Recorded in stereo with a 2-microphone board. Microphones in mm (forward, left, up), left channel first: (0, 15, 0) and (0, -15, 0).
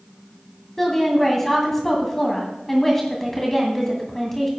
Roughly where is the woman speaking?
Centre.